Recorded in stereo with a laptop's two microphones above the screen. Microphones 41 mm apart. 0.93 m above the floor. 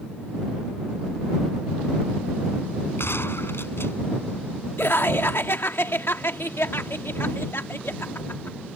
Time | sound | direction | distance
3.0 | a gunshot | 70° left (ahead or behind) | ?
4.8 | laughter | 70° left (ahead or behind) | ?